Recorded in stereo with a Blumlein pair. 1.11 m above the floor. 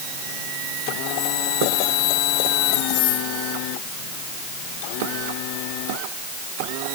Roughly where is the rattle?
No rattle in this recording.